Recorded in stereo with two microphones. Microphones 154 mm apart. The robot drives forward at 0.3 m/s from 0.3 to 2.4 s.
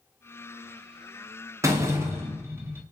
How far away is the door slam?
About 0.6 m.